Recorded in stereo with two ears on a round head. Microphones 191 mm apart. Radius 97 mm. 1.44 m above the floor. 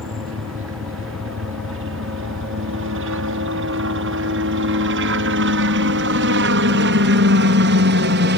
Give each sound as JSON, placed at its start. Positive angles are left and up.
{"t": 0.0, "sound": "a helicopter", "side_deg": -70}